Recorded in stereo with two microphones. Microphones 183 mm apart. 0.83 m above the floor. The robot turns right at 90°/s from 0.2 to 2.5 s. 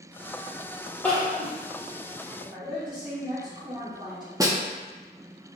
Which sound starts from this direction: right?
A woman speaking, at 2.4 s.